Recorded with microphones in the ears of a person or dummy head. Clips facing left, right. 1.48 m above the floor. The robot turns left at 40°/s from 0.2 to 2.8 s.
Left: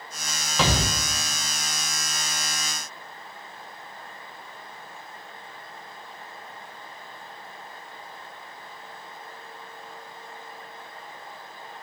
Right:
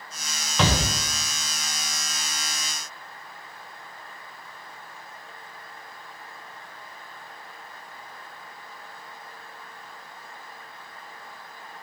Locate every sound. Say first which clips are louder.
0.6 s a shout: right 1 dB; 5° left (ahead or behind), 0.9 m; by 0.8 s 15° left (ahead or behind), 0.9 m